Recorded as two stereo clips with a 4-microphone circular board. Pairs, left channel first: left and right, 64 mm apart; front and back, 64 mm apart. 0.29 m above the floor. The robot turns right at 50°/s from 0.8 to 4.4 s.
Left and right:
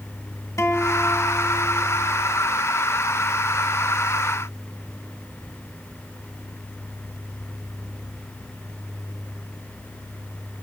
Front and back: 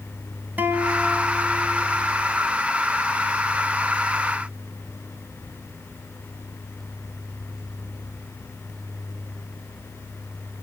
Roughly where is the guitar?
Behind left.